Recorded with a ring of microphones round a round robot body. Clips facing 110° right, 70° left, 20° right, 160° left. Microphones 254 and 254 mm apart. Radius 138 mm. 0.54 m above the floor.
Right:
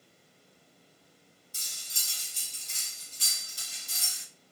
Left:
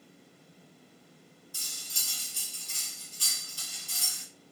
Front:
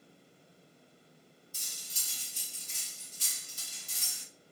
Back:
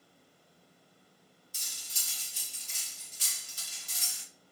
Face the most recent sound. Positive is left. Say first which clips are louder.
# left 5 dB, front 2 dB
turn(degrees=175)